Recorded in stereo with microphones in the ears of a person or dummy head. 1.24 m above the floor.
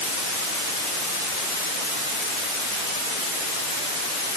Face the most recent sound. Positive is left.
No sound to turn to.